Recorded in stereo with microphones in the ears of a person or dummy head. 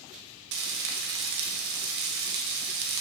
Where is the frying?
70° right (ahead or behind), 0.9 m.